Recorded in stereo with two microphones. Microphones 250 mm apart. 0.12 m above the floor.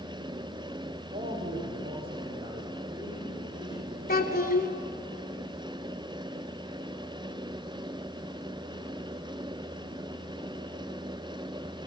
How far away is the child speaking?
About 1.3 m.